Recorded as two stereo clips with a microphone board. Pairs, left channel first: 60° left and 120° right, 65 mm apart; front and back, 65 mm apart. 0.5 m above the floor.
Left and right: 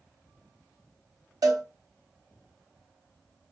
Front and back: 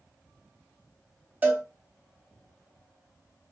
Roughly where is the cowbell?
Behind right.